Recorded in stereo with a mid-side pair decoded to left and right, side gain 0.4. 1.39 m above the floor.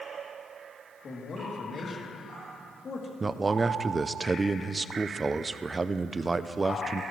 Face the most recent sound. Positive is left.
turn(degrees=-30)